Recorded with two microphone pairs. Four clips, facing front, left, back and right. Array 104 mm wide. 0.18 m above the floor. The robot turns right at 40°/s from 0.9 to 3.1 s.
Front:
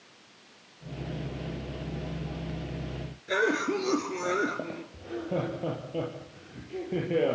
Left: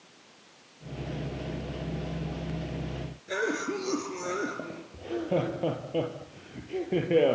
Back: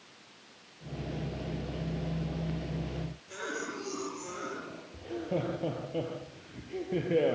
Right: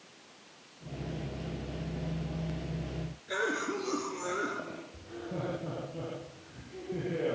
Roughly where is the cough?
Ahead.